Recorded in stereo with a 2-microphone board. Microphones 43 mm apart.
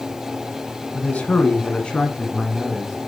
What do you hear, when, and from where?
0.9 s a man speaking: 35° left (ahead or behind), 1.9 m; by 3.0 s 10° left (ahead or behind), 2.5 m